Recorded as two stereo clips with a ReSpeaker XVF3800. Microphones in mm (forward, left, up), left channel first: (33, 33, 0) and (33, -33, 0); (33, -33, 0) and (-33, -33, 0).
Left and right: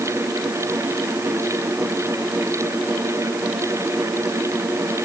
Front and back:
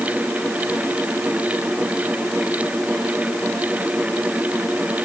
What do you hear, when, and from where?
Only background noise.